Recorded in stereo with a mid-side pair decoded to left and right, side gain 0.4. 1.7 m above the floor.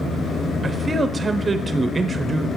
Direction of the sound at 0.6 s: 30° right.